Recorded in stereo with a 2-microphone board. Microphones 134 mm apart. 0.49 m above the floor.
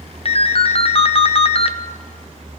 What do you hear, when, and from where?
0.2 s a ringtone: 45° left (ahead or behind), 0.5 m